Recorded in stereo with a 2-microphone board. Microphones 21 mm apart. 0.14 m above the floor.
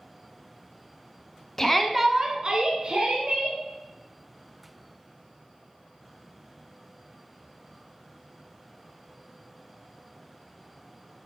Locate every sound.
1.6 s a shout: 20° left (ahead or behind), 1.1 m; by 3.6 s 60° right (ahead or behind), 3 m